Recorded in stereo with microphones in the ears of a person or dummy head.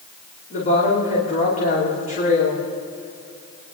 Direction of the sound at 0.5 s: 40° left (ahead or behind).